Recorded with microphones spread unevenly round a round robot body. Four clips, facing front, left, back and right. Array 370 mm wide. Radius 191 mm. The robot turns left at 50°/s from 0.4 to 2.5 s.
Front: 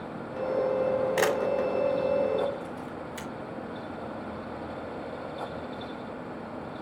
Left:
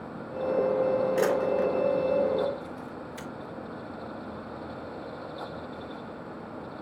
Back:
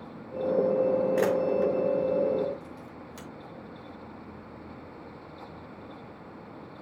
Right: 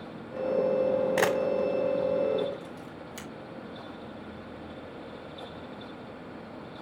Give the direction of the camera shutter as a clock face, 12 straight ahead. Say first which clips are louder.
Left 1 dB, back 1 dB; 2 o'clock.